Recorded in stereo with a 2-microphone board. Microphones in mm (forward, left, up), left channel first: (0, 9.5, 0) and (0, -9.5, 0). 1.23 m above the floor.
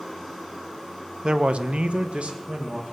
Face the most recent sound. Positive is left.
turn(degrees=-50)  # may be behind; listen again after turning